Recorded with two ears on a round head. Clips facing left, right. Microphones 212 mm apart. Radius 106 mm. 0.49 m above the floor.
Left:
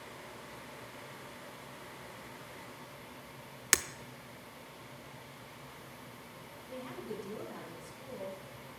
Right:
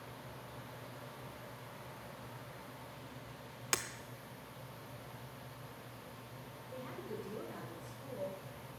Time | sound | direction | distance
3.7 | breaking glass | 30° left (ahead or behind) | 0.5 m
6.7 | a woman speaking | 50° left (ahead or behind) | 4 m